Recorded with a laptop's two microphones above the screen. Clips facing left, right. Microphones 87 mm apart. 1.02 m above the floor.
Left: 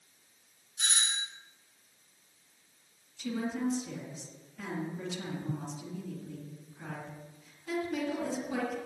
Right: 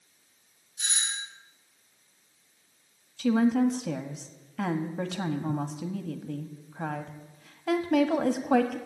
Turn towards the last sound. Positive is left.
turn(degrees=-80)